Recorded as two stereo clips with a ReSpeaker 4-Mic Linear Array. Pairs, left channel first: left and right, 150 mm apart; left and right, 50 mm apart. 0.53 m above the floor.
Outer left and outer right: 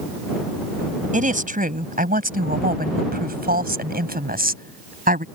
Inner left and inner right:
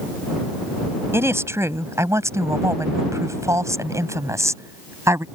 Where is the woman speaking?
55° right (ahead or behind); by 5.2 s 65° right (ahead or behind).